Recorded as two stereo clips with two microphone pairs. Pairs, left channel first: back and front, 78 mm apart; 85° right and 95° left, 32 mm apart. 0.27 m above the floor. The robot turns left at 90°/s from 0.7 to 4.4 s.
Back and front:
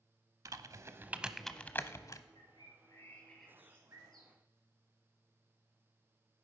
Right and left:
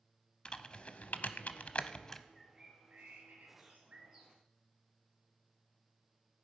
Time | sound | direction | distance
0.5 | typing on a keyboard | 30° right | 0.7 m
2.4 | a bird | 170° right | 4 m